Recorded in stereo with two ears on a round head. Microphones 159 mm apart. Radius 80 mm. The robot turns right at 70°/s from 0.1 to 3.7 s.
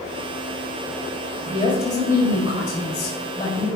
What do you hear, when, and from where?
1.4 s a woman speaking: 10° left, 4.5 m; by 3.7 s 165° left, 4.5 m